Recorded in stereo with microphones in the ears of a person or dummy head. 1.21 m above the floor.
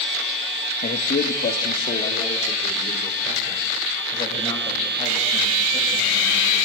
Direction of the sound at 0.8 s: 40° left (ahead or behind).